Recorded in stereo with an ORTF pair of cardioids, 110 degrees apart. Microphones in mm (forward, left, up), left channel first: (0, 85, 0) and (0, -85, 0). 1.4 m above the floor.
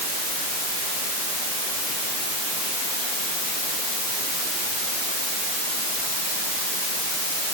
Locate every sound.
Only background noise.